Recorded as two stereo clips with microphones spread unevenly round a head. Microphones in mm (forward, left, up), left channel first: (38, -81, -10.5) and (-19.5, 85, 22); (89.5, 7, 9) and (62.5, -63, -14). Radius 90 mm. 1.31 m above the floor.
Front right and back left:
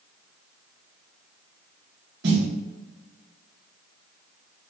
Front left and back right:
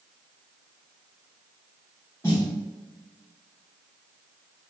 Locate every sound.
2.2 s a snare drum: 145° left, 1.1 m